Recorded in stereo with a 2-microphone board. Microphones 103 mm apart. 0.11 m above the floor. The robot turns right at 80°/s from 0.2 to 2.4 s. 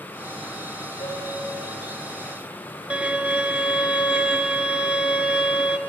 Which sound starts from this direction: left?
A piano, at 1.0 s.